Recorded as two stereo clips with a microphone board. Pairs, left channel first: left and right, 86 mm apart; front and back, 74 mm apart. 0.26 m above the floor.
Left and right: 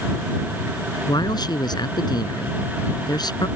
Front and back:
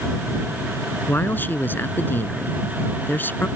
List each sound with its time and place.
1.1 s a man speaking: 60° left